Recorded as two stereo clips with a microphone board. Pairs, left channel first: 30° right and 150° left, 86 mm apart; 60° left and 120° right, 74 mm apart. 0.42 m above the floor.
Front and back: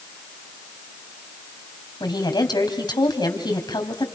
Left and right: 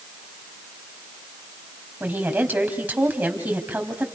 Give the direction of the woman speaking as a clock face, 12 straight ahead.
2 o'clock.